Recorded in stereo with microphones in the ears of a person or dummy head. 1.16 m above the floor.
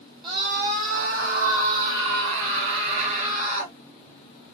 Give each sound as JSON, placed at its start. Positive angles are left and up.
{"t": 0.2, "sound": "a scream", "side_deg": -25, "distance_m": 0.6}